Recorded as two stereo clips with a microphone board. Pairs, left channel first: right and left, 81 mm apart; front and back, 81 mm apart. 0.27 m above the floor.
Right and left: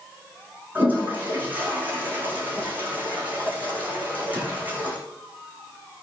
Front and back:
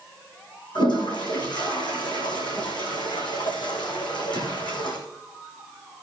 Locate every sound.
0.8 s a toilet flushing: 20° left, 4 m